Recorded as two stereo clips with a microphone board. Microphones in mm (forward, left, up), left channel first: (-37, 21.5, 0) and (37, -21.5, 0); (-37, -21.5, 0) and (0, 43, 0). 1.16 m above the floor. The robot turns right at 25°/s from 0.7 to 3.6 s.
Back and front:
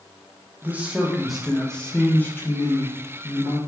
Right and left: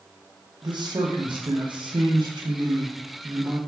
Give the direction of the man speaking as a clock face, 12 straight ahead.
11 o'clock.